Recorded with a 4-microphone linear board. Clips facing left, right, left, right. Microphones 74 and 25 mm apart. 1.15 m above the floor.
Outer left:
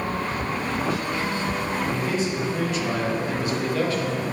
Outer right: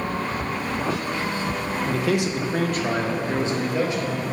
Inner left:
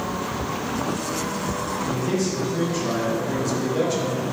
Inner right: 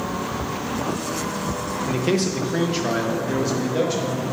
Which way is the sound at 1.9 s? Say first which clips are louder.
Outer right 2 dB, inner right 4 dB; 85° right.